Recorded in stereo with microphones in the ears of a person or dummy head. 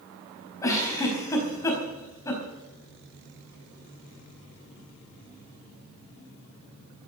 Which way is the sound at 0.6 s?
15° left (ahead or behind).